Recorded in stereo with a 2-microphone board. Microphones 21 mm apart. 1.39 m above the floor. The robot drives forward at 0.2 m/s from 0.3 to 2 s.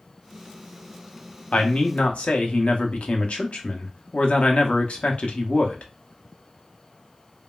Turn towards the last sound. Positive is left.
turn(degrees=70)  # may be behind; listen again after turning